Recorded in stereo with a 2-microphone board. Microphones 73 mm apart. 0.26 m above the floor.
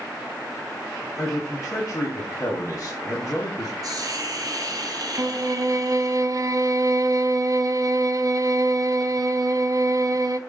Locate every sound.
1.2 s a man speaking: 45° left (ahead or behind), 1.7 m
3.8 s a hiss: 55° right (ahead or behind), 1.3 m
5.2 s a violin: 50° right (ahead or behind), 0.5 m